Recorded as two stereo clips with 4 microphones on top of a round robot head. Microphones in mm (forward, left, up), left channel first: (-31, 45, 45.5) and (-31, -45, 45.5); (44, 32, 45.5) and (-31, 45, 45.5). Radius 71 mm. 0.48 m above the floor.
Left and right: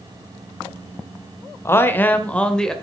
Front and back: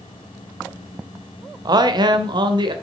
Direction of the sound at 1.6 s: 150° left.